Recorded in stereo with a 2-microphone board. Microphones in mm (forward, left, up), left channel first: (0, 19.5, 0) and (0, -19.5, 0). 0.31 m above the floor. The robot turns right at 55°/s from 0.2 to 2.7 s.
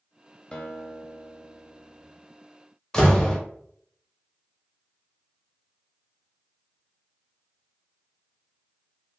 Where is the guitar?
155° left, 0.6 m; by 2.1 s 120° right, 0.6 m.